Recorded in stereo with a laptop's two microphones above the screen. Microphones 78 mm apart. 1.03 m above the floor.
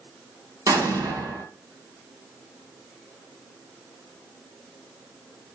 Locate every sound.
0.7 s an explosion: 50° right (ahead or behind), 1.4 m